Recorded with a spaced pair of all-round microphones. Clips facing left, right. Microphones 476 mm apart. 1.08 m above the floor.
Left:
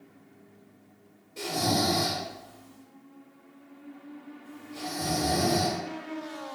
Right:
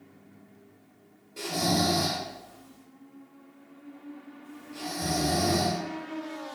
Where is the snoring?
5° left (ahead or behind), 0.8 m.